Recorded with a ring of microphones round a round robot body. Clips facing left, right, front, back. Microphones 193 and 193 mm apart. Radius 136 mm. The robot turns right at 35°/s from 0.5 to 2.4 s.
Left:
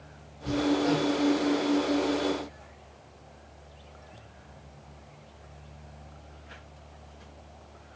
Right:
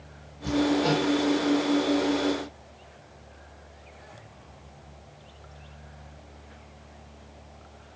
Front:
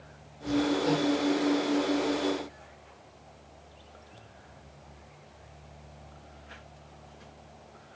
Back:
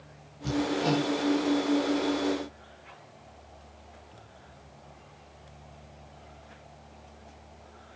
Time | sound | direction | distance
0.4 | hammering | 145° right | 8.5 m